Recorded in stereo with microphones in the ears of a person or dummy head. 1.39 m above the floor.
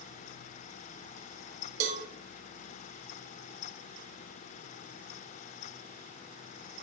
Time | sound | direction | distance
1.8 | a cowbell | 40° right (ahead or behind) | 0.6 m